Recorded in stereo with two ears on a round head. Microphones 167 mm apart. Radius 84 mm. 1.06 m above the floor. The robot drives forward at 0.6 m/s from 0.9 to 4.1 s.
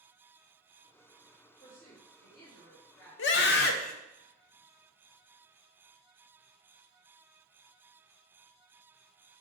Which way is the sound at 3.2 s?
65° left (ahead or behind).